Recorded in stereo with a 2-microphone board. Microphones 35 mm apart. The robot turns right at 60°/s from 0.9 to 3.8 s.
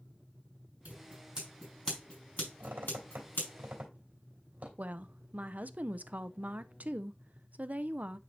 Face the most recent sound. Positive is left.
turn(degrees=-45)  # may be behind; listen again after turning